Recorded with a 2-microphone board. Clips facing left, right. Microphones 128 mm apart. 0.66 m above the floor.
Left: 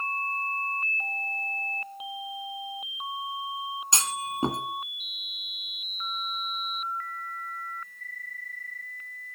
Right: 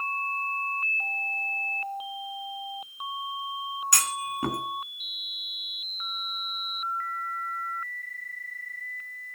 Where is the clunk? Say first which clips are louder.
Left 1 dB; 25° left (ahead or behind), 1.5 m.